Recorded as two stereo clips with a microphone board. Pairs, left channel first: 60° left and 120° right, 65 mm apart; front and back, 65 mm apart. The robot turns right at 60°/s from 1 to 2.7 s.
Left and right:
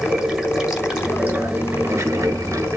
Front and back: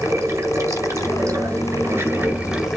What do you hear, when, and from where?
0.0 s running water: 165° left, 2.0 m; by 2.8 s 95° right, 2.0 m